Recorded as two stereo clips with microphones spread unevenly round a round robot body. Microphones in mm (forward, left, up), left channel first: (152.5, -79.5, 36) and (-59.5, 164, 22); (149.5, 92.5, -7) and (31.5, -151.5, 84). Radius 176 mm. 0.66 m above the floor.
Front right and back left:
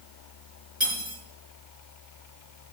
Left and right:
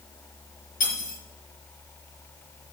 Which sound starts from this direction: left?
Cutlery clinking, at 0.8 s.